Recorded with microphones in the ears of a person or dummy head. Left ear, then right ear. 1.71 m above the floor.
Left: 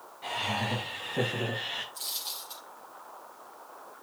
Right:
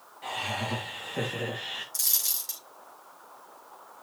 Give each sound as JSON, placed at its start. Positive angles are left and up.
{"t": 0.2, "sound": "laughter", "side_deg": -20, "distance_m": 4.0}
{"t": 1.9, "sound": "a dropped coin", "side_deg": -65, "distance_m": 4.0}